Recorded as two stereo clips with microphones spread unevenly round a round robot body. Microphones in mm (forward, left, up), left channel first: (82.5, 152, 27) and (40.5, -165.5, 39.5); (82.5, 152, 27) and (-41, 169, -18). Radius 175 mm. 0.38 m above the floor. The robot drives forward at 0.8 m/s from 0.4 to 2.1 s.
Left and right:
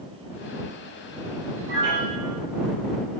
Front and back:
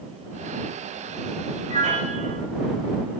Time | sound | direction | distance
1.7 | a piano | 150° right | 9 m